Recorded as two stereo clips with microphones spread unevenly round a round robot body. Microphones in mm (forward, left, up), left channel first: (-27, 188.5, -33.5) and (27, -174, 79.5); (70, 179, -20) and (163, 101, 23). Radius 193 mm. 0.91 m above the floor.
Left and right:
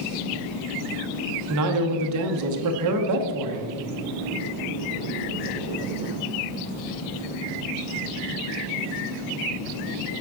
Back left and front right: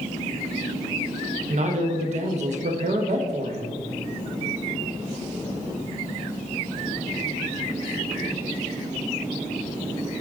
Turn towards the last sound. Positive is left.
turn(degrees=-40)